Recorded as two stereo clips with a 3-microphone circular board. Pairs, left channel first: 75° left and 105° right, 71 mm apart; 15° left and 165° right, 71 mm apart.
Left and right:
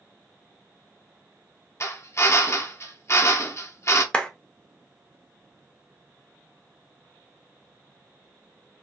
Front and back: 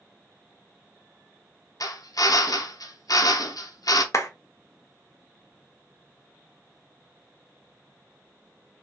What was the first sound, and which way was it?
A drill, 35° left.